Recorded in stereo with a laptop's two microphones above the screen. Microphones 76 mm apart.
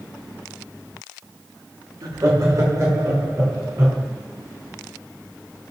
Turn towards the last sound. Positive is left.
turn(degrees=-35)  # may be behind; listen again after turning